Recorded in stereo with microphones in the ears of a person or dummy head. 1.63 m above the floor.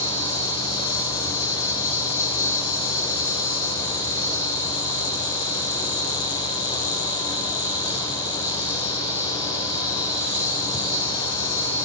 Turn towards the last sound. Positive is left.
turn(degrees=30)  # may be behind; listen again after turning